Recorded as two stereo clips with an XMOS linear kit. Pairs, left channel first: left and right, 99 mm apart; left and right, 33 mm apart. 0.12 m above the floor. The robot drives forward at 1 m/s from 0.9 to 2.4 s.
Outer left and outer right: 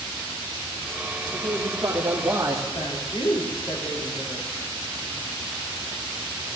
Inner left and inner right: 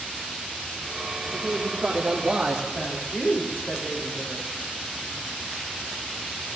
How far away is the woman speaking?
About 4.5 m.